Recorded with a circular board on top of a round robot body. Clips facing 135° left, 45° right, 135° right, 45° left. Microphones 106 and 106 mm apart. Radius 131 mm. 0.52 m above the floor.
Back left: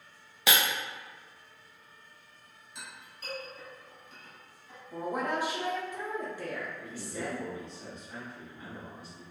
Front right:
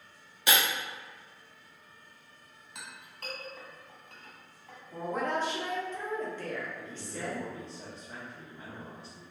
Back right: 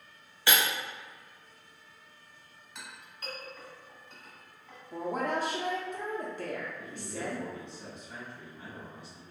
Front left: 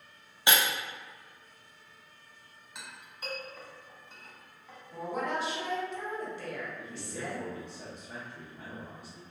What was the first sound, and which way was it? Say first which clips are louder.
Breaking glass: even, front left 1 dB; 115° left.